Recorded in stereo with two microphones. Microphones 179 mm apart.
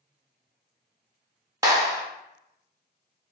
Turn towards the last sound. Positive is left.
turn(degrees=-20)  # may be behind; listen again after turning